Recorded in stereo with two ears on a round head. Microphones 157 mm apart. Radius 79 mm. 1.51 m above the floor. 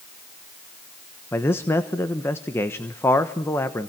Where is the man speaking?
15° left (ahead or behind), 1.2 m.